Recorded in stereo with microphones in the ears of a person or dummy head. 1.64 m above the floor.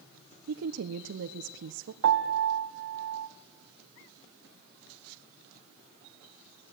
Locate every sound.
0.5 s a woman speaking: 65° right (ahead or behind), 1.2 m
2.0 s a piano: 80° right, 1.5 m